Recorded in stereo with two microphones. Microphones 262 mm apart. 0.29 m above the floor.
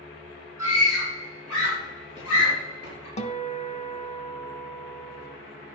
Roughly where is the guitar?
Left.